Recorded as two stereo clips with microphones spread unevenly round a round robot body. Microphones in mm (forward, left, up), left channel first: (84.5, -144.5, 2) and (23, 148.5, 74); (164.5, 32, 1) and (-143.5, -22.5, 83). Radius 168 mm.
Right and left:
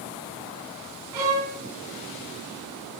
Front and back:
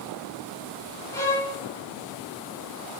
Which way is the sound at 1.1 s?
90° left.